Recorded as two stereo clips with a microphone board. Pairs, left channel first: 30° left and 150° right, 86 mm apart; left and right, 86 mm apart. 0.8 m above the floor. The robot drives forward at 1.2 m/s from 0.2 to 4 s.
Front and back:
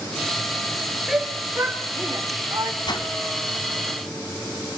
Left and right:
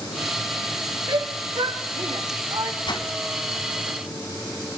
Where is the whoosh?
60° left, 2 m; by 3.1 s 65° left, 2 m.